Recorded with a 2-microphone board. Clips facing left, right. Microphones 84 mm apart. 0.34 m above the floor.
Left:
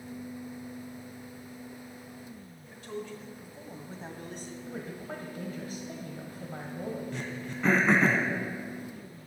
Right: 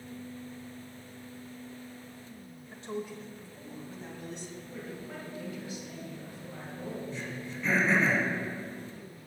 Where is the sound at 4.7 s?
50° left (ahead or behind), 2 m.